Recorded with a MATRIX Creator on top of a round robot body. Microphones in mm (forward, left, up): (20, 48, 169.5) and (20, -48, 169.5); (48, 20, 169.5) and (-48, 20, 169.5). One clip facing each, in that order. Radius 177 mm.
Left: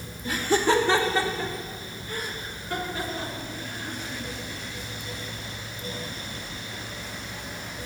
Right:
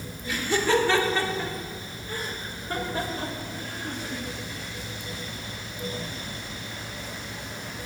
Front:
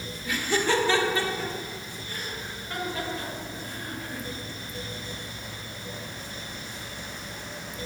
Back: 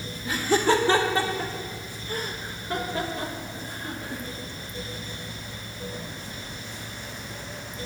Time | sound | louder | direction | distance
0.2 | laughter | left 2 dB, back 4 dB | 125° left | 1.5 m